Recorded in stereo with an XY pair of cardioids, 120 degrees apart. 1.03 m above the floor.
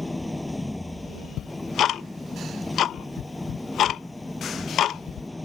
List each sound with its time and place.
0.0 s an engine running: 10° left
1.4 s ticking: 55° left